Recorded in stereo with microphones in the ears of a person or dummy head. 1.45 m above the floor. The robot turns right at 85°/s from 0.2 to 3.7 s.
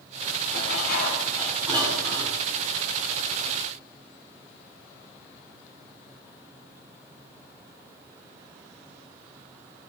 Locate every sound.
0.5 s dishes clattering: 100° left, 8 m; by 2.4 s 95° right, 8 m